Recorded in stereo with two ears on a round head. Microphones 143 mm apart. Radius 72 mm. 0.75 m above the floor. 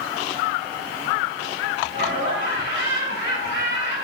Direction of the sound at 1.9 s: 80° right.